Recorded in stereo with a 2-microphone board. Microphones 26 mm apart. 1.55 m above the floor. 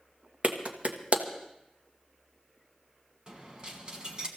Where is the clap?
50° right (ahead or behind), 1.4 m.